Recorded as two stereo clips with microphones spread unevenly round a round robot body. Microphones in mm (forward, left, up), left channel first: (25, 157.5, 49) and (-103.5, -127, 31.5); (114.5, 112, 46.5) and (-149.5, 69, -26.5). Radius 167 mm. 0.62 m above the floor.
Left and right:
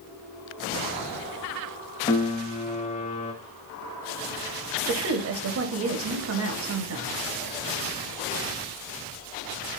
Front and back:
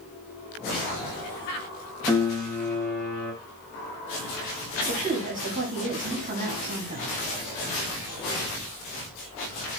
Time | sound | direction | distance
2.1 | a piano | 120° left | 0.8 m
4.9 | a woman speaking | 135° right | 0.8 m